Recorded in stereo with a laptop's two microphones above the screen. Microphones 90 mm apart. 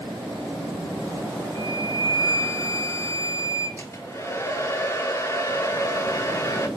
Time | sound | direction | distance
1.6 | a flute | 35° left (ahead or behind) | 1.0 m
3.8 | a hair dryer | 30° left (ahead or behind) | 1.0 m